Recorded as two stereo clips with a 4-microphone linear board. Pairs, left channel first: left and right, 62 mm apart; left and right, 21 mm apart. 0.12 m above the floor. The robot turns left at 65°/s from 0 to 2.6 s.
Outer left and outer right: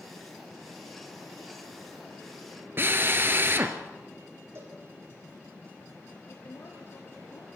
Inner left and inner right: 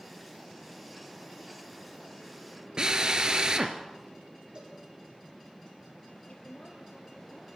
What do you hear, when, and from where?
2.8 s a drill: 40° right (ahead or behind), 1.7 m
4.5 s a cowbell: 50° right (ahead or behind), 7 m
6.3 s a woman speaking: 60° left (ahead or behind), 3 m